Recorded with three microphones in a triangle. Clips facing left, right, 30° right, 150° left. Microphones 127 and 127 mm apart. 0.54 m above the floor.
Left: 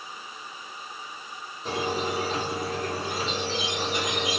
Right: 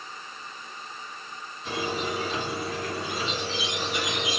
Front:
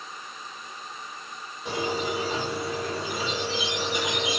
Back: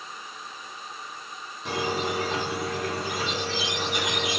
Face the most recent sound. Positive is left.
turn(degrees=140)